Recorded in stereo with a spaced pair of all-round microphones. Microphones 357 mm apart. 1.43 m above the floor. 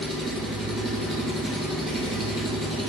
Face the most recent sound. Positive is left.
turn(degrees=0)  # may be behind; listen again after turning